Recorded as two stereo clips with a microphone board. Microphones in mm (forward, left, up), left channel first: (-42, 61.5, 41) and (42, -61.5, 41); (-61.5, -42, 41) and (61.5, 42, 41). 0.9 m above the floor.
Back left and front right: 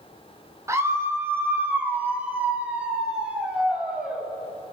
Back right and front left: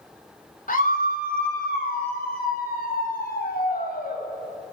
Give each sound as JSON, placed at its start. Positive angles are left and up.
{"t": 0.7, "sound": "a scream", "azimuth_deg": -125, "distance_m": 3.0}